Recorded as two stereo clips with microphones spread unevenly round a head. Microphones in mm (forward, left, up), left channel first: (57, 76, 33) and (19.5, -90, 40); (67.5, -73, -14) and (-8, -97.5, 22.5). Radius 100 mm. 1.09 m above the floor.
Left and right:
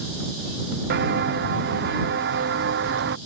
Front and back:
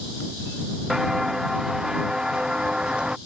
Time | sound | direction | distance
0.9 | footsteps | 80° right | ?